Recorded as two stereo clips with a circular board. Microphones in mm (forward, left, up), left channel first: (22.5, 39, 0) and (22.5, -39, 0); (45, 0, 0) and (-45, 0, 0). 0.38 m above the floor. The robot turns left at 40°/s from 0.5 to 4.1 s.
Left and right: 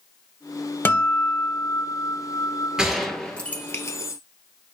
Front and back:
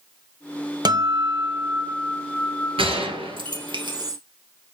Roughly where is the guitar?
Behind left.